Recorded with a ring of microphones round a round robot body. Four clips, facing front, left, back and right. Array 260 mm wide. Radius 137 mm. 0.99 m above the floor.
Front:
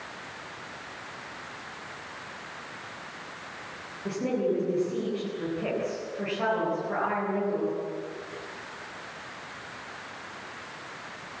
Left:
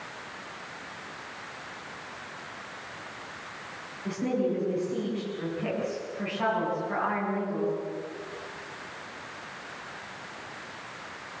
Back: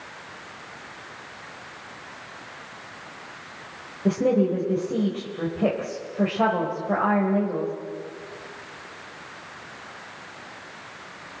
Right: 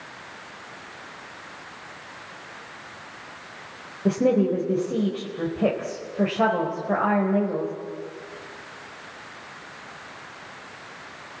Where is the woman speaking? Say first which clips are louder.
Right 8 dB, back 7 dB; 125° right, 4.5 m.